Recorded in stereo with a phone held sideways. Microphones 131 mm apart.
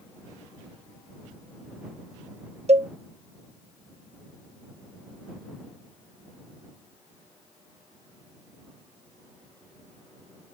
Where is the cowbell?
55° right (ahead or behind).